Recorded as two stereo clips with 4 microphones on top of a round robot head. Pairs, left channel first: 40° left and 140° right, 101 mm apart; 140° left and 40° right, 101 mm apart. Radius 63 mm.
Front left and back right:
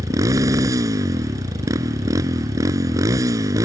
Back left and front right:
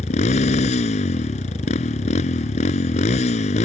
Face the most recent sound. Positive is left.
turn(degrees=160)